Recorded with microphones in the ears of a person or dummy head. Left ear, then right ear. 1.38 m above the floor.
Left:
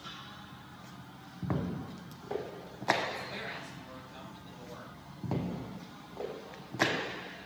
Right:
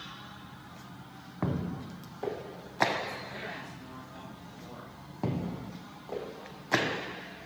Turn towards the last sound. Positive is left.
turn(degrees=40)  # may be behind; listen again after turning